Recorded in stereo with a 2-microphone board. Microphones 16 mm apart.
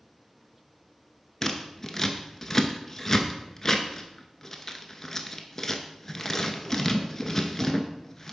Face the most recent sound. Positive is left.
turn(degrees=15)  # may be behind; listen again after turning